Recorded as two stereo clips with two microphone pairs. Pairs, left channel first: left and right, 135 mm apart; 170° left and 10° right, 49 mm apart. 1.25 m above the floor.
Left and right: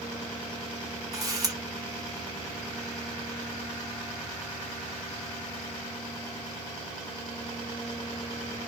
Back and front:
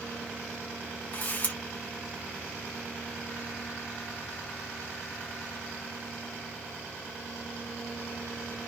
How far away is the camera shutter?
About 1.0 m.